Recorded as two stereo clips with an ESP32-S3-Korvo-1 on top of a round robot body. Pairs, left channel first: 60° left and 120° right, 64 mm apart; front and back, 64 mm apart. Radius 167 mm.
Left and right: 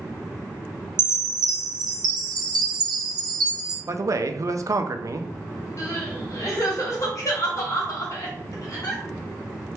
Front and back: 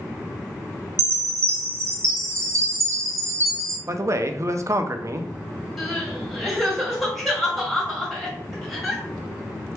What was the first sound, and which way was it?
A chime, 135° right.